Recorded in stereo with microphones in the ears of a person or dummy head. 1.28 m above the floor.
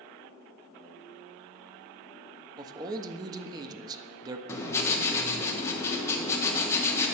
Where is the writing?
15° left (ahead or behind), 1.3 m.